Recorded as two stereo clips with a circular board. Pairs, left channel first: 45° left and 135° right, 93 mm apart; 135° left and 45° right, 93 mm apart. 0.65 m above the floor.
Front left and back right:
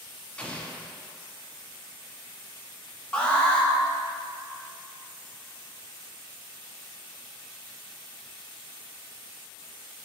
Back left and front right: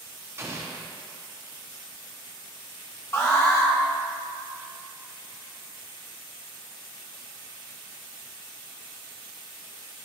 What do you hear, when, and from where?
0.4 s an explosion: 20° right, 0.9 m
3.1 s an alarm: 110° left, 1.3 m